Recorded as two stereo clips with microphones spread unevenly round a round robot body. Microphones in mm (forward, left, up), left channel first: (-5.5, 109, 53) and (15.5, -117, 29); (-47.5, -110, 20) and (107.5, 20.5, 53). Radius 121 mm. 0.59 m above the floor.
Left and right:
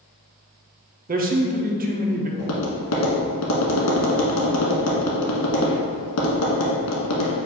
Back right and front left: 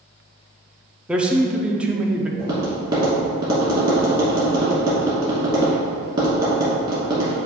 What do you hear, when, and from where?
1.1 s a man speaking: 50° right, 0.9 m
2.4 s tapping: 110° left, 1.3 m